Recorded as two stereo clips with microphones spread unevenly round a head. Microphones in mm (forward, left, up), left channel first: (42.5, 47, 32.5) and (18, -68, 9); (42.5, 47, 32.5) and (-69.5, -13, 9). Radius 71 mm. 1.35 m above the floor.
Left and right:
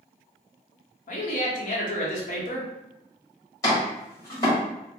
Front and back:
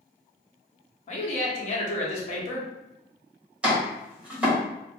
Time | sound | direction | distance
1.1 | a man speaking | 60° left | 1.0 m
3.6 | chopping | 120° left | 1.4 m